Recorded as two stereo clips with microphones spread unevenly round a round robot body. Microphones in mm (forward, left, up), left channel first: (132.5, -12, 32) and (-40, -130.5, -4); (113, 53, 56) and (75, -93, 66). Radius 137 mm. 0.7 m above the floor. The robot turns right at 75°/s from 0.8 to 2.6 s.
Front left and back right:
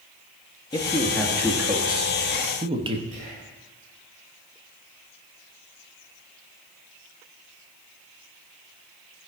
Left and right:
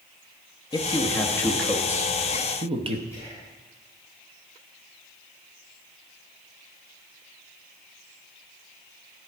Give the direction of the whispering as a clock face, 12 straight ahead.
6 o'clock.